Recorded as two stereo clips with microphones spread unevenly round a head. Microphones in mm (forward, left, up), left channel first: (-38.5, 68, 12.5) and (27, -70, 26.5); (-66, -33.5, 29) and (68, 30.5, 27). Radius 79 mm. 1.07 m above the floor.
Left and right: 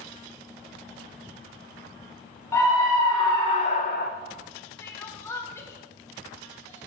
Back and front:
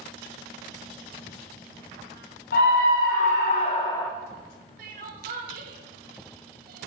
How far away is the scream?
About 1.2 m.